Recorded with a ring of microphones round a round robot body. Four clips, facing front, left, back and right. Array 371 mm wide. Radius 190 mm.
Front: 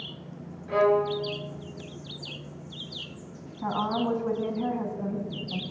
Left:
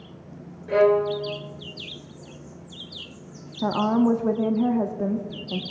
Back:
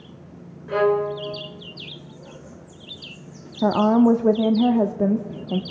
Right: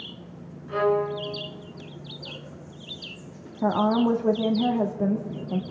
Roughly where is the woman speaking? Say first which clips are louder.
Left 1 dB, back 11 dB; behind.